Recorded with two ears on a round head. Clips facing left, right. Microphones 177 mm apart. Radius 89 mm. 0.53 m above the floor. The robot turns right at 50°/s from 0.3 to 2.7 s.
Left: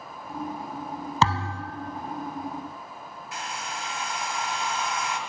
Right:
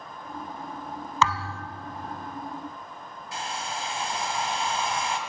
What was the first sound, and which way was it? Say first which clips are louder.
A thud: left 1 dB; 30° left (ahead or behind).